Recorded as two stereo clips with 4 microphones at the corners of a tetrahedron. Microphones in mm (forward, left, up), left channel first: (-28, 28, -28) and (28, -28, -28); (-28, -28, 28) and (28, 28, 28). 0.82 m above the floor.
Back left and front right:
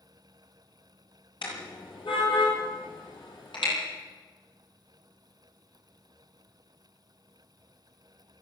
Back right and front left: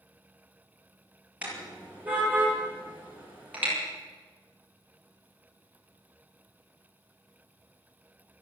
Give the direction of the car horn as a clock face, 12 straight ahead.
8 o'clock.